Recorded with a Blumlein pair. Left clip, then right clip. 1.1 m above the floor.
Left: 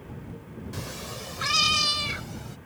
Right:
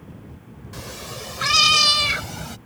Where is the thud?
I don't hear a thud.